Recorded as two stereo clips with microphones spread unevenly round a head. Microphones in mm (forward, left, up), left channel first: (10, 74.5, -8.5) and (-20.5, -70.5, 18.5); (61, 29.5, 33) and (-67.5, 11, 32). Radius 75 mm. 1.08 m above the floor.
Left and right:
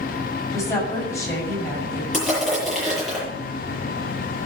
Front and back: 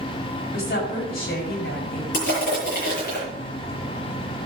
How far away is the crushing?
About 8 m.